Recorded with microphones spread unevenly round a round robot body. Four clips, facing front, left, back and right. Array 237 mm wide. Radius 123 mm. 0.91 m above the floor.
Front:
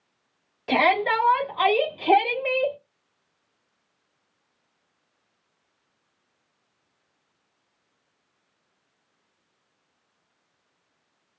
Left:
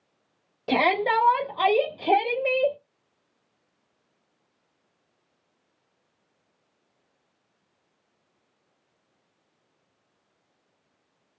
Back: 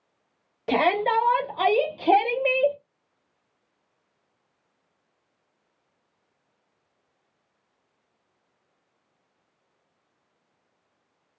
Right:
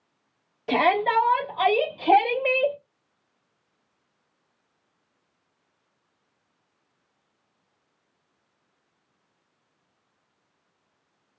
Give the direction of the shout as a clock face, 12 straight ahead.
7 o'clock.